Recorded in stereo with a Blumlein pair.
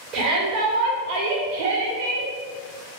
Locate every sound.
0.1 s a shout: 30° right, 2.0 m; by 2.3 s 60° right, 1.2 m